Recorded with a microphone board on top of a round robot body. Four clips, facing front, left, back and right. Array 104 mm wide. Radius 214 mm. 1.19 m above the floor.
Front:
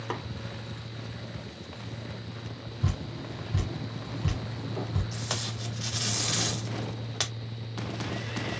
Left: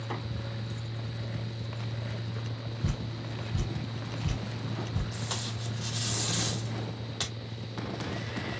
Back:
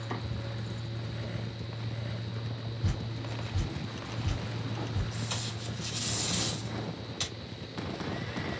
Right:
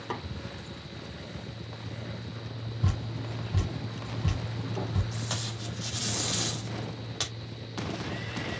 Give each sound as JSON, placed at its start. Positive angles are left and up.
{"t": 0.1, "sound": "tapping", "azimuth_deg": -20, "distance_m": 3.5}
{"t": 2.8, "sound": "dripping", "azimuth_deg": -40, "distance_m": 3.0}
{"t": 5.1, "sound": "tape being pulled", "azimuth_deg": -5, "distance_m": 1.8}